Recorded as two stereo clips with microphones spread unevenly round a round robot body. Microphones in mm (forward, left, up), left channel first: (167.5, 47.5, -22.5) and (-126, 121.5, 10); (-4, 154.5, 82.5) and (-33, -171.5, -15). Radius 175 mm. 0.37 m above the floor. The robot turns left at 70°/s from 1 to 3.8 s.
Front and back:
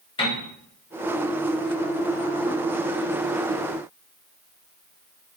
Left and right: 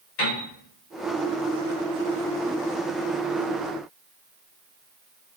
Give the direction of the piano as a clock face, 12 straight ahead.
10 o'clock.